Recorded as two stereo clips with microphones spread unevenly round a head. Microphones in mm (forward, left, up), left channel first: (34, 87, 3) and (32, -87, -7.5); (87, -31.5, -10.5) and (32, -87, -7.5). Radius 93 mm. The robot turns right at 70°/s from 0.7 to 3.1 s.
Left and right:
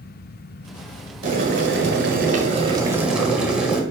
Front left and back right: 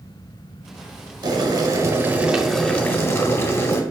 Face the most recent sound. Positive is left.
turn(degrees=-5)